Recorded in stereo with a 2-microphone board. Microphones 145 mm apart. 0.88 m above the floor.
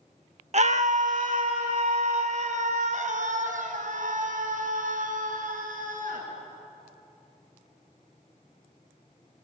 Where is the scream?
50° right (ahead or behind), 0.8 m; by 6.2 s 65° right (ahead or behind), 8 m.